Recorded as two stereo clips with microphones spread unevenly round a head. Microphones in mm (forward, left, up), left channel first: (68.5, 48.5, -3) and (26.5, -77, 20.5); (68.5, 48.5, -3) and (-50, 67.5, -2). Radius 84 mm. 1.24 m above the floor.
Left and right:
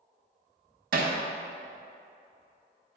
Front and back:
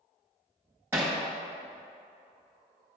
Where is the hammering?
110° right, 0.8 m.